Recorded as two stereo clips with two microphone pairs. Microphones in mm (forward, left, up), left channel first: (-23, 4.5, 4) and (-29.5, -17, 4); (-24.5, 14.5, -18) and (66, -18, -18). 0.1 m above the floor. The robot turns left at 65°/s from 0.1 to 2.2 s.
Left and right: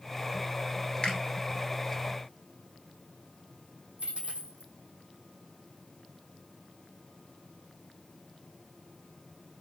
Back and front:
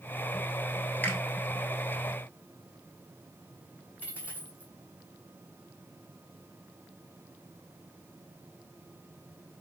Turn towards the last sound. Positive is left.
turn(degrees=-90)